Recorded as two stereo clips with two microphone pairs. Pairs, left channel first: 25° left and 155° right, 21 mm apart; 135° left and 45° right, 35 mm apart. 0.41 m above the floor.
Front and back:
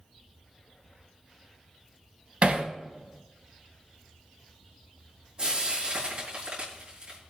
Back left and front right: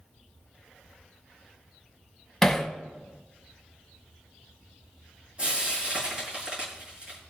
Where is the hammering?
145° right, 1.9 m.